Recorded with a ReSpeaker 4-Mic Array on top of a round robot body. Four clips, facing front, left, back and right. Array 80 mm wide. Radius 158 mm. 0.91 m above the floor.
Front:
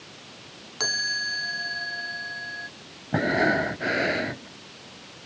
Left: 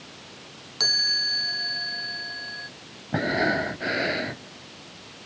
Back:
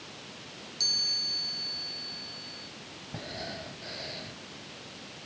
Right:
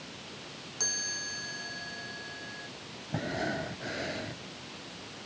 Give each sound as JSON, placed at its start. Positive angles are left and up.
{"t": 0.8, "sound": "a chime", "azimuth_deg": 20}
{"t": 3.1, "sound": "breathing", "azimuth_deg": 25}